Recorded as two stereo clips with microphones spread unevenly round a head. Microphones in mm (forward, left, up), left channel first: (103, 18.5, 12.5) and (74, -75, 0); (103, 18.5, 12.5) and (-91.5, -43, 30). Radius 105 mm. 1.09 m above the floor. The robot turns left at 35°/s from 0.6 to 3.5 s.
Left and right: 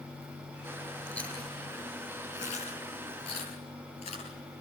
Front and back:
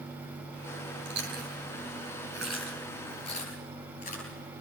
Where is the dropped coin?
I don't hear a dropped coin.